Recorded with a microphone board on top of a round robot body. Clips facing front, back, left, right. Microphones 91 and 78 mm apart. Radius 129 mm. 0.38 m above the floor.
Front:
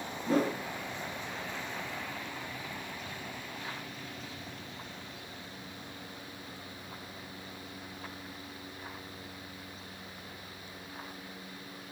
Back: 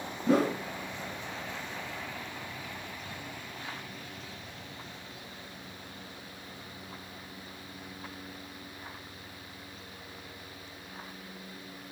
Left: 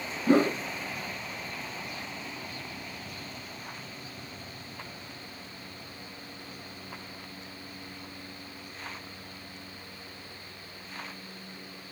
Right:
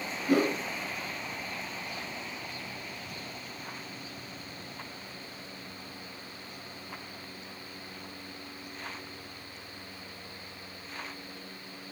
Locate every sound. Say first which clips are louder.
0.3 s a whoosh: back 3 dB, left 3 dB; 150° left, 1.6 m